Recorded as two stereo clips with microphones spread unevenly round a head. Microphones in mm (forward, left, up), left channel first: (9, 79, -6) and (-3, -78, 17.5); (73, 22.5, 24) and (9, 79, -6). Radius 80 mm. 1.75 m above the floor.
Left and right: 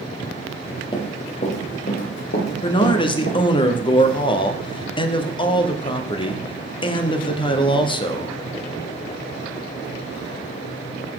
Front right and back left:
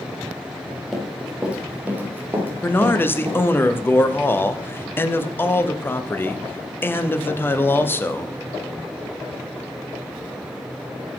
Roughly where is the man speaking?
Ahead left.